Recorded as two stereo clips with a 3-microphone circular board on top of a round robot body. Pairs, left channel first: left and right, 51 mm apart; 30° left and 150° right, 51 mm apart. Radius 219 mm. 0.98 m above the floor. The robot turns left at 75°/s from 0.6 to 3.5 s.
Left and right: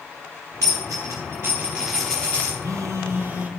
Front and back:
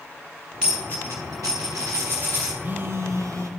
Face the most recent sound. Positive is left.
turn(degrees=-155)